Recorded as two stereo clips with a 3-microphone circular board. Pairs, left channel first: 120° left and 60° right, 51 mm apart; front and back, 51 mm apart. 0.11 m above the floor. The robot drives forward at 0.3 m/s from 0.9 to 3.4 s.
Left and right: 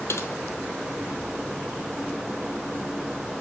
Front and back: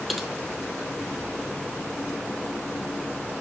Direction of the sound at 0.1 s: 90° left.